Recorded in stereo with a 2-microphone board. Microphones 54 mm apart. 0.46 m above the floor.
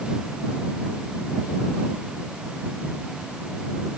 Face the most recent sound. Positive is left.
No sound to turn to.